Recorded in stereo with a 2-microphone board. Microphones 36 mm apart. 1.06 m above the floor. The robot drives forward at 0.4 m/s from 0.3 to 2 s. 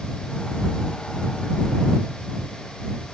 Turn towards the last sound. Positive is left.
No sound to turn to.